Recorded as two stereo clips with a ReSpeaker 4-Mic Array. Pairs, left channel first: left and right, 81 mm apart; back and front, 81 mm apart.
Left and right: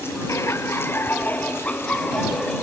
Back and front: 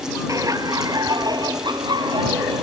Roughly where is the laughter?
Ahead left.